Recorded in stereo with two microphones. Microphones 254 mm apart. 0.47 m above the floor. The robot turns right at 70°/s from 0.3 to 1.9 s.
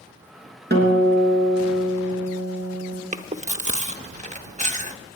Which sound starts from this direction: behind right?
A guitar, at 0.7 s.